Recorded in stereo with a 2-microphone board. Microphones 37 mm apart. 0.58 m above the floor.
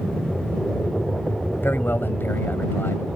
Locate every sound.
0.0 s an aircraft: 5° right (ahead or behind)
1.6 s a man speaking: 75° left (ahead or behind)